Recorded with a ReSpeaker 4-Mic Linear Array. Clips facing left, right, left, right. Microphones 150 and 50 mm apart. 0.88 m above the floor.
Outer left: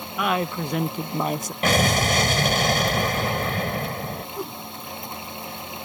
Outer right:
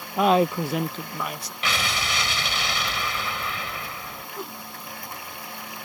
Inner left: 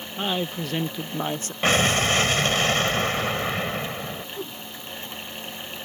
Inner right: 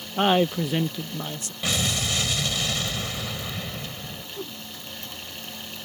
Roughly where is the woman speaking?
Right.